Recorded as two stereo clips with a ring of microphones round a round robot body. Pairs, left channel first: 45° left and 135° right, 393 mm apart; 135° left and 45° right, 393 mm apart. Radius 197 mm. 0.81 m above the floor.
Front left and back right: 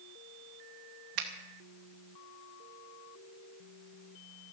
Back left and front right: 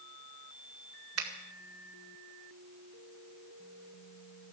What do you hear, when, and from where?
1.2 s a finger snap: 100° right, 2 m